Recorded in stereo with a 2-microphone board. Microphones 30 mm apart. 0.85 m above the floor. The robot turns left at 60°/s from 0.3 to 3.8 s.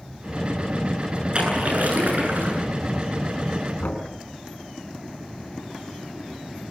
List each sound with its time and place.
1.3 s a splash: 35° right, 9 m; by 2.6 s 110° right, 9 m
3.8 s knocking: 70° left (ahead or behind), 5 m